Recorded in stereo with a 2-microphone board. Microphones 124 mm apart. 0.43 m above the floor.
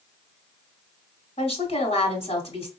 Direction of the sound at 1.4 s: 60° left (ahead or behind).